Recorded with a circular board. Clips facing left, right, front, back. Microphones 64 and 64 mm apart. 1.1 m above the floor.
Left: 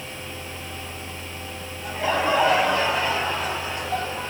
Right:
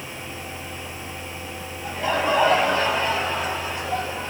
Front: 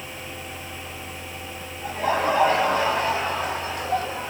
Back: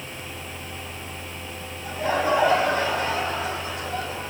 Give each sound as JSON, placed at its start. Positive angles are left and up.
{"t": 1.8, "sound": "laughter", "azimuth_deg": 0, "distance_m": 9.0}